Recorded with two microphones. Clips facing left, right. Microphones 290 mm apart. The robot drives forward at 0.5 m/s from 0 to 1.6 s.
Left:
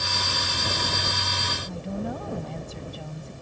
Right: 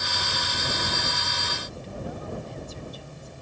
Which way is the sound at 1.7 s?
60° left (ahead or behind).